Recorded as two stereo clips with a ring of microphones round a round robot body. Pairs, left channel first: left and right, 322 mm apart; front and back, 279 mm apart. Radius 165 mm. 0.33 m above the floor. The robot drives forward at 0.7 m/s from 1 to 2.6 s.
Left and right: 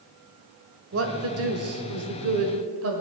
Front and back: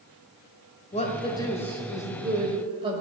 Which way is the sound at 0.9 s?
60° right.